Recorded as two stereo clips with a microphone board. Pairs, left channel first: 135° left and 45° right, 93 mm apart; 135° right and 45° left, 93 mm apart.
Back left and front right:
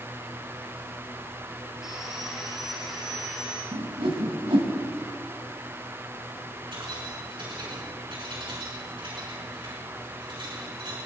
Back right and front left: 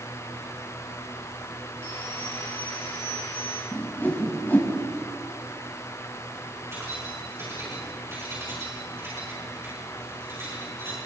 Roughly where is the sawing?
Behind right.